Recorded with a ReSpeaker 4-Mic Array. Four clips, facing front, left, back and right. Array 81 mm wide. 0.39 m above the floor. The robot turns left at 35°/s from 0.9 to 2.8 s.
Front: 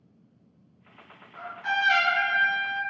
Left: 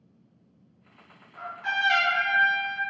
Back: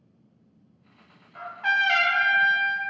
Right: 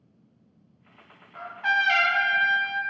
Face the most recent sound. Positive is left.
turn(degrees=180)